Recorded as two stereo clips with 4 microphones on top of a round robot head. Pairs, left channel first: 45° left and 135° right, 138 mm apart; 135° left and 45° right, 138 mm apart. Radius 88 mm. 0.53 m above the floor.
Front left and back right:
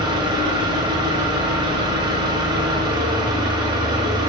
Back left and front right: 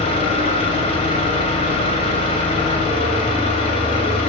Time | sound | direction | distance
0.0 | an engine running | 175° left | 0.7 m